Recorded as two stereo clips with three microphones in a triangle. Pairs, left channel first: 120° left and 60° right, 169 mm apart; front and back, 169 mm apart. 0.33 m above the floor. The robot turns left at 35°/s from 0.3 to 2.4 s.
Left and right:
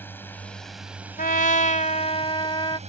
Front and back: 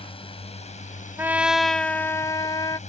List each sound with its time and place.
0.0 s a drone: 45° left; by 2.9 s 30° right
1.2 s a trumpet: 105° left; by 2.8 s 65° left